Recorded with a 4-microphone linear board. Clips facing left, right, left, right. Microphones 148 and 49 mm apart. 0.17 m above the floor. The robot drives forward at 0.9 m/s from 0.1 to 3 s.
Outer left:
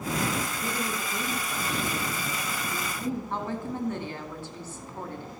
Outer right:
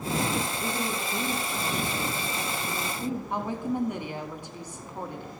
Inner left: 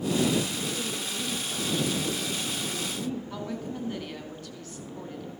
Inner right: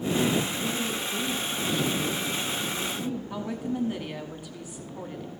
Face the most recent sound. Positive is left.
turn(degrees=-15)  # may be behind; listen again after turning